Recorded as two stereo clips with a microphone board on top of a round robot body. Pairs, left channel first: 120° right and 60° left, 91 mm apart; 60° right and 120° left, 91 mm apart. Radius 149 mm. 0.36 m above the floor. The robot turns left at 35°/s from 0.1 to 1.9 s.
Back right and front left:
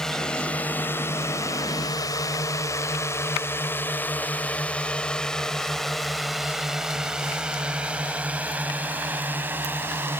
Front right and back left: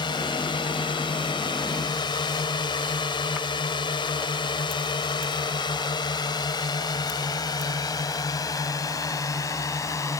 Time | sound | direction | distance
0.0 | a drone | 35° right | ?